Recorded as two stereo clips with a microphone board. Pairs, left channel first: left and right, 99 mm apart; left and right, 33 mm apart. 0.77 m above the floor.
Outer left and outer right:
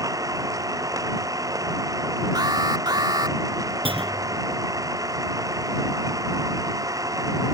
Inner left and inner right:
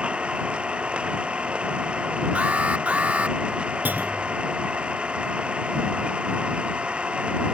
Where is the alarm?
50° right (ahead or behind).